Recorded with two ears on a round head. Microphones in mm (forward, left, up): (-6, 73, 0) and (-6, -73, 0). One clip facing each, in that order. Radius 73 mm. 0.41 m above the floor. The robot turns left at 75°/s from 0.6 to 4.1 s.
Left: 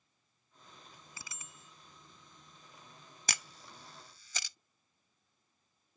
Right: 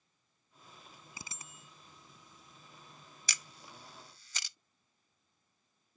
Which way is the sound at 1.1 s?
15° right.